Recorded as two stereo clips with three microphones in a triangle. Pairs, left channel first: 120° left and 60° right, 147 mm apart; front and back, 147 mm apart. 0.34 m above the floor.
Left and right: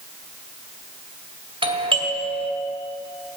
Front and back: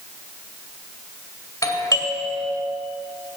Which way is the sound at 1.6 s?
50° right.